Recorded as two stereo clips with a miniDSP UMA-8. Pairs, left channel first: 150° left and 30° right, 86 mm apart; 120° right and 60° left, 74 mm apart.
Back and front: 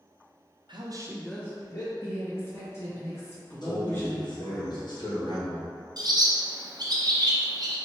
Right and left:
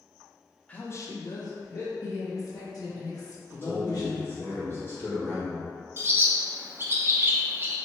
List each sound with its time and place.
0.7 s a woman speaking: 50° right, 0.7 m; by 1.9 s 165° right, 1.1 m
2.0 s a woman speaking: 150° right, 1.5 m
3.6 s a man speaking: straight behind, 1.4 m
6.0 s a bird: 5° left, 0.6 m